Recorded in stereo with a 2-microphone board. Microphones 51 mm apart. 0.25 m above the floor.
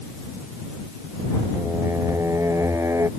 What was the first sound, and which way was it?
Singing, 65° right (ahead or behind).